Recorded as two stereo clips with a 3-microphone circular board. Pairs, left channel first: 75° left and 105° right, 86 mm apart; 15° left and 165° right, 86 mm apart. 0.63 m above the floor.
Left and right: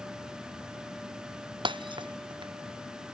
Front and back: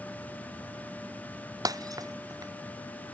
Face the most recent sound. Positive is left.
turn(degrees=-120)